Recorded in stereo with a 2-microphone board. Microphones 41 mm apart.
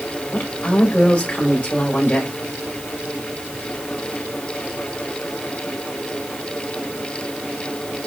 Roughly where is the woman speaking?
Left.